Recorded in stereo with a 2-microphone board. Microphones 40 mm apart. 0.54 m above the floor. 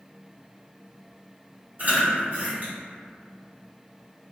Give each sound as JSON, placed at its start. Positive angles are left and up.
{"t": 1.8, "sound": "chewing", "side_deg": -40, "distance_m": 1.6}